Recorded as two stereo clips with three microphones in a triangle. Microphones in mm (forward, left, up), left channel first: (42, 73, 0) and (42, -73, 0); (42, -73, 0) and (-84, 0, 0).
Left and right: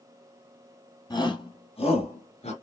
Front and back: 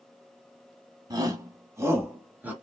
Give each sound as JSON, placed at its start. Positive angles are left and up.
{"t": 1.1, "sound": "a shout", "azimuth_deg": 115, "distance_m": 1.2}